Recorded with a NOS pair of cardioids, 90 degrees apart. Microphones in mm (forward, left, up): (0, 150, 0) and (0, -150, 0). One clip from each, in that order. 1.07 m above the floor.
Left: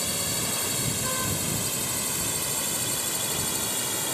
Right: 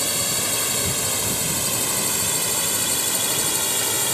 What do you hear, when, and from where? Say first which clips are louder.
0.0 s a drone: right 5 dB; 40° right; by 4.2 s 50° right